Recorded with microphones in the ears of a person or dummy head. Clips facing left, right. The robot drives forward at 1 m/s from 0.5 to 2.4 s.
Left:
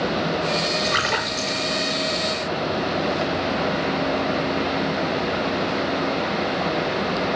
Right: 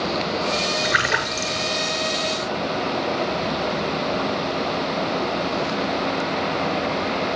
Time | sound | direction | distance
0.8 | a splash | 10° right (ahead or behind) | 6.5 m